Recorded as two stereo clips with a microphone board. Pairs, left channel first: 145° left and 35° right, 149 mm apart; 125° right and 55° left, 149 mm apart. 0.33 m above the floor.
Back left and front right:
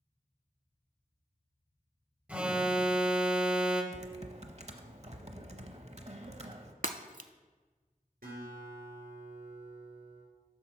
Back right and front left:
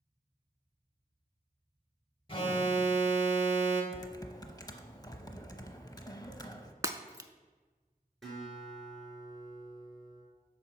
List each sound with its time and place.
2.3 s an alarm: 110° right, 1.1 m
3.9 s typing on a keyboard: 65° right, 0.6 m
6.8 s breaking glass: 15° right, 0.5 m
8.2 s a guitar: 35° right, 4 m